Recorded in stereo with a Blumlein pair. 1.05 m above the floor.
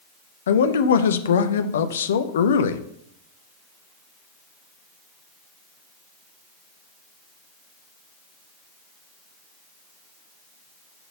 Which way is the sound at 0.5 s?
65° left.